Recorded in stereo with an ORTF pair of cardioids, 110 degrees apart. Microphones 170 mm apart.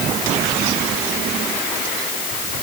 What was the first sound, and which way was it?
Only background noise.